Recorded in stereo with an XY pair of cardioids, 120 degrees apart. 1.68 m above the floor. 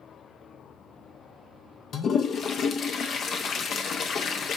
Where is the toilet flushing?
55° left, 0.6 m.